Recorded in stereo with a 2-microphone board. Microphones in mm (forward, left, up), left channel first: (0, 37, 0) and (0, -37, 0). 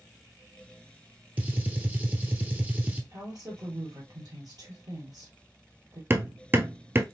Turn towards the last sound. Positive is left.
turn(degrees=-30)  # may be behind; listen again after turning